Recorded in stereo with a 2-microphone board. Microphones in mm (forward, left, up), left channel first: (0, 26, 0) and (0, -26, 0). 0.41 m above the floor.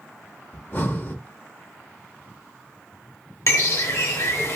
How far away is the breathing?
About 1.0 m.